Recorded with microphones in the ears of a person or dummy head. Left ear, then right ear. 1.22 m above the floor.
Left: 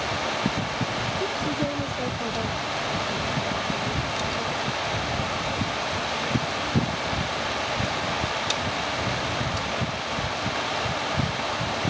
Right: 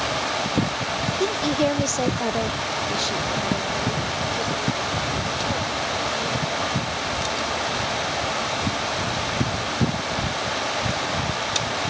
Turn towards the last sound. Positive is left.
turn(degrees=-35)  # may be behind; listen again after turning